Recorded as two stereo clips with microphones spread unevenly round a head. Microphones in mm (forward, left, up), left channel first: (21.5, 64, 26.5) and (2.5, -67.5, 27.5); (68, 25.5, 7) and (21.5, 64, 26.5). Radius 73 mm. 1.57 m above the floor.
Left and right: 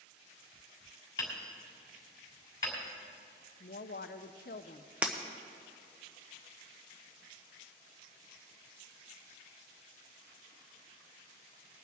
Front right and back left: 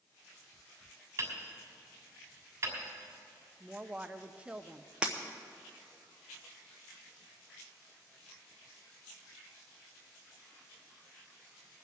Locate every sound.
1.2 s hammering: 145° left, 2.5 m
3.6 s a woman speaking: 85° left, 0.6 m
5.0 s breaking glass: 175° right, 0.7 m